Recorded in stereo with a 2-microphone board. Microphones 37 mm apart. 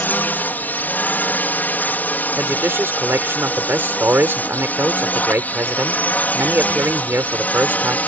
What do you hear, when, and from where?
0.0 s a drone: 50° left (ahead or behind); by 8.1 s 40° left (ahead or behind)
2.4 s a man speaking: 80° right